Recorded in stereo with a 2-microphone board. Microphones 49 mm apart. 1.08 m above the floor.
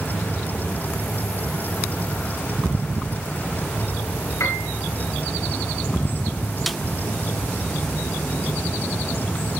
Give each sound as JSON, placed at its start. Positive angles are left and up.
{"t": 4.4, "sound": "a piano", "side_deg": 80, "distance_m": 8.0}
{"t": 6.7, "sound": "a snare drum", "side_deg": 0, "distance_m": 0.5}